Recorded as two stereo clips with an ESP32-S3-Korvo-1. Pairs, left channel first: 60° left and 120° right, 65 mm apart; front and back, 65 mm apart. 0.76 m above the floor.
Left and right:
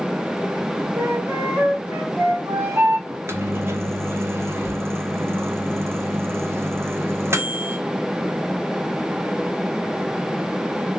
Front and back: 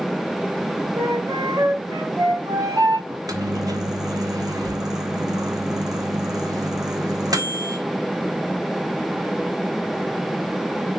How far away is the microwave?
About 1.1 m.